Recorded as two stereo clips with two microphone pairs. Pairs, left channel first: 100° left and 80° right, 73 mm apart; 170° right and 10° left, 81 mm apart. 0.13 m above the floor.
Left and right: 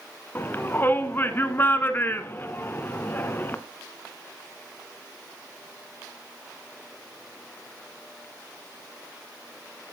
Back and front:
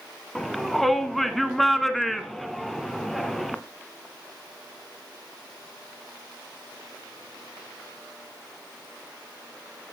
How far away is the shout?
About 1.3 m.